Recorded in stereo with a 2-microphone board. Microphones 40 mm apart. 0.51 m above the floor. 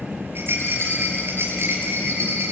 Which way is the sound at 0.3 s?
80° right.